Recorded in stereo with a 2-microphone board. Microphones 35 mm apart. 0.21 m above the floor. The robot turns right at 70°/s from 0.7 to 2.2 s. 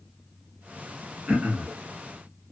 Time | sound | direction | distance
1.3 | throat clearing | 145° right | 1.1 m